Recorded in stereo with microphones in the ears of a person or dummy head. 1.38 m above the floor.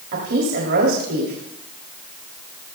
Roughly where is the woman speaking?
Right.